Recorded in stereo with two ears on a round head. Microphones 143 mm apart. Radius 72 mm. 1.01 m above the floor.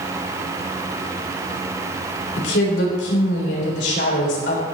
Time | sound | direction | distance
2.4 | a woman speaking | 80° left | 3.5 m